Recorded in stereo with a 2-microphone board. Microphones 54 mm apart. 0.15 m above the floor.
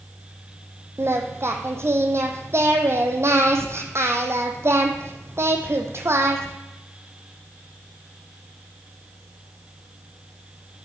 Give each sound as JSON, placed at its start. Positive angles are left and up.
{"t": 1.0, "sound": "singing", "side_deg": -55, "distance_m": 1.2}